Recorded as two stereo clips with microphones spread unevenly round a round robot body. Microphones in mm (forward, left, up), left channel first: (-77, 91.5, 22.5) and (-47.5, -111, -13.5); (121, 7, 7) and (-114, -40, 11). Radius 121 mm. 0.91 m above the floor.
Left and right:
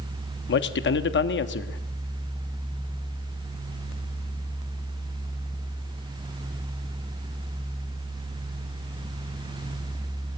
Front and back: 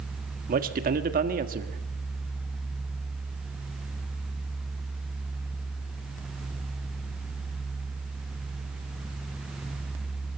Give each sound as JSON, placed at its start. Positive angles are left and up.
{"t": 0.5, "sound": "a man speaking", "azimuth_deg": 135, "distance_m": 1.5}